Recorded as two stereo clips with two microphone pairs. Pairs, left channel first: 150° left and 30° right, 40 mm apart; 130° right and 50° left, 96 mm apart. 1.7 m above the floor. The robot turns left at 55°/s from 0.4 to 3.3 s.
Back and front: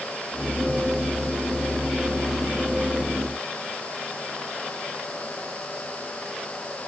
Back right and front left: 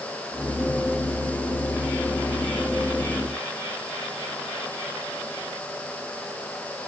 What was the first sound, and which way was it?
Only background noise.